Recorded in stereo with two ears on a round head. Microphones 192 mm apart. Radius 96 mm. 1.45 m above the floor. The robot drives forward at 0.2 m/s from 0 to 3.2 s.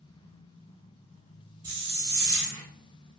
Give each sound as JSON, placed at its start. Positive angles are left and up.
{"t": 1.6, "sound": "a hiss", "side_deg": -20, "distance_m": 1.3}